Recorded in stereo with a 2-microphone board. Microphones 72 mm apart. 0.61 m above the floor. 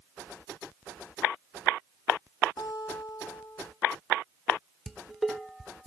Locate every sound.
2.6 s a guitar: 65° left (ahead or behind), 3 m
4.9 s dishes clattering: 5° right (ahead or behind), 1.0 m